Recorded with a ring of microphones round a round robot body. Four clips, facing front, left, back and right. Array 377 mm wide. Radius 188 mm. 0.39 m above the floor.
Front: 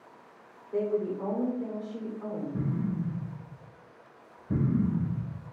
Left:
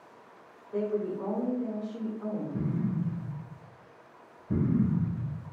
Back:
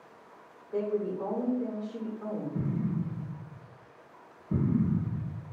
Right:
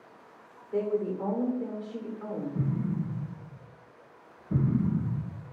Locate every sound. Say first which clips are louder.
0.7 s a woman speaking: right 2 dB, front 1 dB; 75° right, 1.1 m
2.5 s an explosion: right 1 dB, front 1 dB; 35° left, 1.1 m